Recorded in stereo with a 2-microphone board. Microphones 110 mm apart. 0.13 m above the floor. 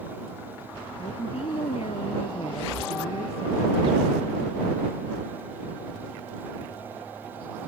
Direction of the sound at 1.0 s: 65° left (ahead or behind).